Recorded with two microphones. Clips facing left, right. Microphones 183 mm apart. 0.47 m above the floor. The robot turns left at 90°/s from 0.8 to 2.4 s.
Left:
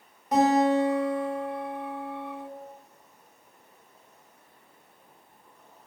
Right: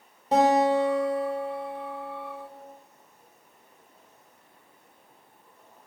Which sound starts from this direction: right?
A guitar, at 0.3 s.